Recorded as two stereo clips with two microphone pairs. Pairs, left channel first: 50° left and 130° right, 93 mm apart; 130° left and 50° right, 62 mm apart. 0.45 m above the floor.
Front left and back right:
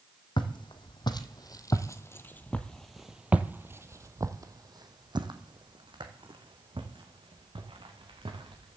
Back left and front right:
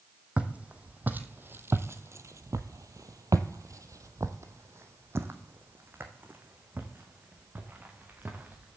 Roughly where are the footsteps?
Ahead.